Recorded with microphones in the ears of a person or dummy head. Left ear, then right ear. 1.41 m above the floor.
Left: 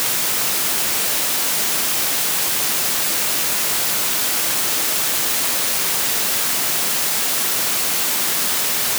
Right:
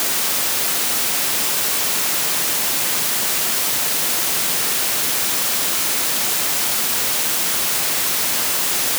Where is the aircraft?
No aircraft in this recording.